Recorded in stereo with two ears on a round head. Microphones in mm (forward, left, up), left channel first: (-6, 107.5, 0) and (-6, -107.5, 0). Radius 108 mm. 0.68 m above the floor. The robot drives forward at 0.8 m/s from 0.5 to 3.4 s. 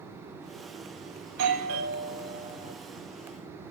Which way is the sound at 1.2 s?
70° right (ahead or behind).